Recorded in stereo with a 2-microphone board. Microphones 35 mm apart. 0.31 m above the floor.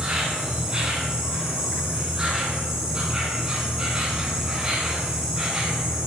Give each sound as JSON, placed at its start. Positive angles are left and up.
{"t": 0.0, "sound": "an insect", "side_deg": -20, "distance_m": 1.8}